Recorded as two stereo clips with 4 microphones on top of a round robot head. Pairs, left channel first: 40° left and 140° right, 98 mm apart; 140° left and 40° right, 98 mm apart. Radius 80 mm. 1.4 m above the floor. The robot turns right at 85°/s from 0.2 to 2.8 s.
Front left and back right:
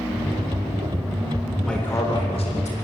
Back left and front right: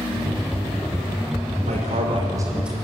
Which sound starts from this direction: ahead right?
A man speaking, at 1.6 s.